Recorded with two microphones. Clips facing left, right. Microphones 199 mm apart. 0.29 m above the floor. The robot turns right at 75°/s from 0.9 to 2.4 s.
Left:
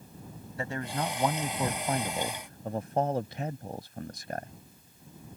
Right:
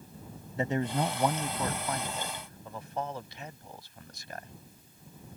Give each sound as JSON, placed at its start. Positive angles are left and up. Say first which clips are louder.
{"t": 0.6, "sound": "a man speaking", "louder": "right 4 dB", "azimuth_deg": -30}